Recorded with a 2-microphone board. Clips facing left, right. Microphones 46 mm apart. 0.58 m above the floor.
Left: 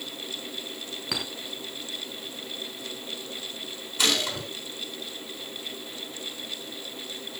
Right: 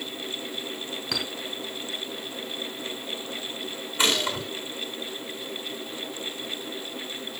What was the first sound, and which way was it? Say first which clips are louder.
A clink: right 1 dB; 5° left (ahead or behind).